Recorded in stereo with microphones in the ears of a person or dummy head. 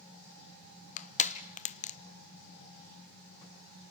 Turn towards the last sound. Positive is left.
turn(degrees=35)  # may be behind; listen again after turning